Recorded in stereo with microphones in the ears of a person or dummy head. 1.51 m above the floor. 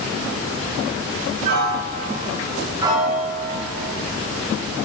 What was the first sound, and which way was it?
A piano, 50° right (ahead or behind).